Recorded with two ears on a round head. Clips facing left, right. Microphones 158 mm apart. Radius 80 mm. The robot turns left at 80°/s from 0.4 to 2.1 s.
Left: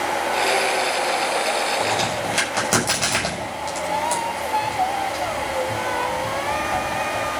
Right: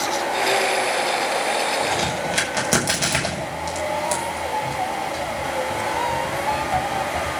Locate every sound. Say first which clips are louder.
1.8 s a crack: even; 20° left (ahead or behind), 6.5 m; by 7.3 s 5° right (ahead or behind), 6.5 m